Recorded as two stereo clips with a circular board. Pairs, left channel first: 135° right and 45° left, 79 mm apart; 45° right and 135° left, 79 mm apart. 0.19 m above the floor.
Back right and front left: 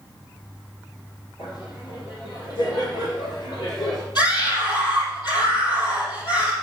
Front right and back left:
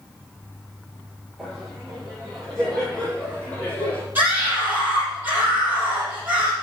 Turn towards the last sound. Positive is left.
turn(degrees=-155)